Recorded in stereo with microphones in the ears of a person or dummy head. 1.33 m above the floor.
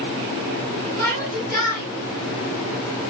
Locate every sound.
1.0 s a shout: 15° left (ahead or behind), 8 m